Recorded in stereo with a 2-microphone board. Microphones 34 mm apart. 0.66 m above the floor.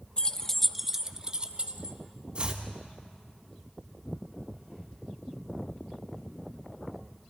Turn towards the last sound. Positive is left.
turn(degrees=-35)  # may be behind; listen again after turning